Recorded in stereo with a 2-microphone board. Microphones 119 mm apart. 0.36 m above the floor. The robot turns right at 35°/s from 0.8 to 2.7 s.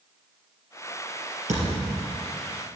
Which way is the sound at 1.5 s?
80° right.